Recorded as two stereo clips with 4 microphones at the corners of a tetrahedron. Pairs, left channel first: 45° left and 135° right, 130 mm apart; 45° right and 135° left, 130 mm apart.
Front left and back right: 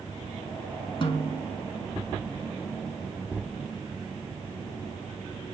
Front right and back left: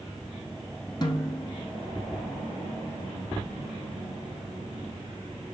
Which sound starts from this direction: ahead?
A snare drum, at 1.0 s.